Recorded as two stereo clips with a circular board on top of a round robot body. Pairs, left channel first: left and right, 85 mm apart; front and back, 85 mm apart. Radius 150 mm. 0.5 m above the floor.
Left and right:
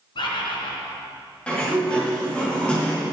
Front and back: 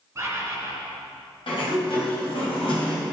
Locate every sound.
0.1 s a bird: 115° left, 1.8 m
1.5 s a sliding door: 15° left, 3 m